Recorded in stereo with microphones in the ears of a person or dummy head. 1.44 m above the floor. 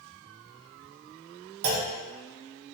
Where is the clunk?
65° right (ahead or behind), 0.5 m.